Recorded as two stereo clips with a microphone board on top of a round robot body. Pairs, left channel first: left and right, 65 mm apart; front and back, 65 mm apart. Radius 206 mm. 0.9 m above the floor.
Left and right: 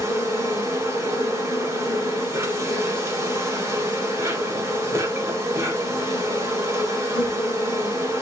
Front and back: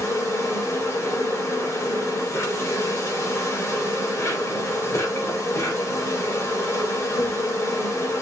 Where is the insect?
45° right, 4.5 m.